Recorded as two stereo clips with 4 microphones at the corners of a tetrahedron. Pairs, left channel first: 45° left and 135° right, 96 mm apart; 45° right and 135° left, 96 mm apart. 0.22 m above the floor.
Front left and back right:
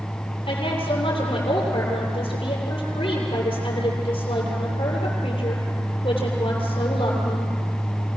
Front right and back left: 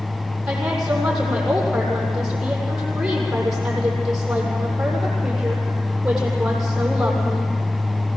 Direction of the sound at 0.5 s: 55° left.